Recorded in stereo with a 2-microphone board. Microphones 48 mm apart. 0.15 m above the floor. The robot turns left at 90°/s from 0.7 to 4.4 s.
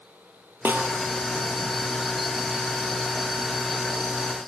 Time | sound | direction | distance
0.7 | a snare drum | 45° right (ahead or behind) | 1.7 m